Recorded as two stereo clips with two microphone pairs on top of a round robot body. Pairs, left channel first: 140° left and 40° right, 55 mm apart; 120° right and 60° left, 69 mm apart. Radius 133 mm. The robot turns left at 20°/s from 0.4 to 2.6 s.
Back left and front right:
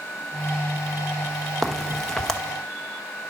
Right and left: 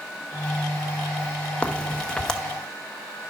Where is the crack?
175° left, 1.1 m; by 2.4 s 160° left, 1.1 m.